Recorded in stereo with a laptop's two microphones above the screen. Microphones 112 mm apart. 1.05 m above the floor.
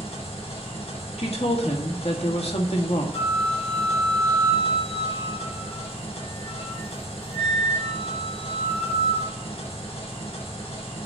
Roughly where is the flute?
Left.